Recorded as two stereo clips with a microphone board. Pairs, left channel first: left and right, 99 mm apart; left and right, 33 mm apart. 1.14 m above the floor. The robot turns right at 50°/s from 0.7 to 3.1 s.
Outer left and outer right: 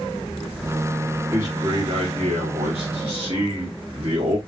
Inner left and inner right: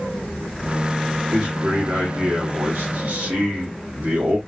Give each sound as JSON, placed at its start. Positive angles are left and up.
{"t": 1.3, "sound": "a man speaking", "azimuth_deg": -155, "distance_m": 1.8}